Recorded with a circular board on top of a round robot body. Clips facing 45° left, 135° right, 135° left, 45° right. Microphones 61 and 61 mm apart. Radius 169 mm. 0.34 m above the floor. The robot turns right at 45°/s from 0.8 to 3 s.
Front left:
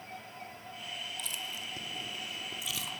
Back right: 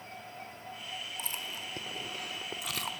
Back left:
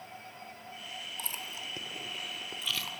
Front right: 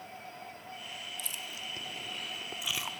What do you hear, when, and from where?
1.2 s chewing: 175° left, 1.8 m; by 2.9 s 110° right, 1.8 m